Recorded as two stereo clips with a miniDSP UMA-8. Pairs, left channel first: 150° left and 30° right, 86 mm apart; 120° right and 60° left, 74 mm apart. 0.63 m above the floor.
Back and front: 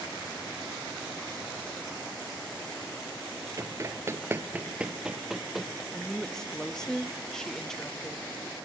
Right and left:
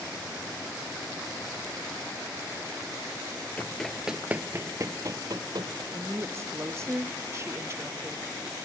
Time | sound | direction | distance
3.6 | running footsteps | 60° right | 0.7 m
5.9 | a woman speaking | 70° left | 0.7 m